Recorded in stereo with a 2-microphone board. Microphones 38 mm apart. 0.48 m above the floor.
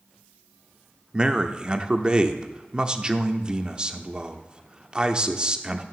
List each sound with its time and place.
1.1 s a man speaking: 25° right (ahead or behind), 0.7 m